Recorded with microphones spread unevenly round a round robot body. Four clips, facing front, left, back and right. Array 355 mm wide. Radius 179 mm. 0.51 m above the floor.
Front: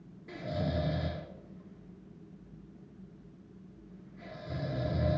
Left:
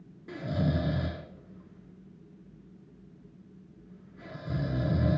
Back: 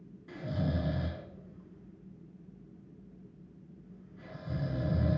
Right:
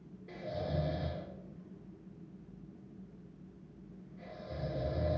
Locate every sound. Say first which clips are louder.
0.3 s snoring: left 7 dB, even; 115° left, 1.5 m